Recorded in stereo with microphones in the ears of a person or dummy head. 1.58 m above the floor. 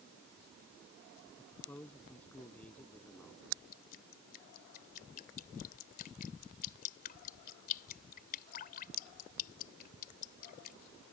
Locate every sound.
1.4 s a man speaking: 15° left (ahead or behind); by 3.4 s 10° left (ahead or behind)
3.7 s dripping: 50° left (ahead or behind)